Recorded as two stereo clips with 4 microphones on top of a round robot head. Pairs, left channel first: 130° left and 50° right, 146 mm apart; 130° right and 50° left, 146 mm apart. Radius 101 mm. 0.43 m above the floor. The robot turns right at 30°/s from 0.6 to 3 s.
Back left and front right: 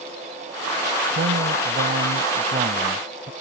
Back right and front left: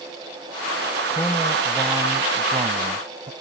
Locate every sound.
1.1 s a man speaking: 55° right; by 3.3 s straight ahead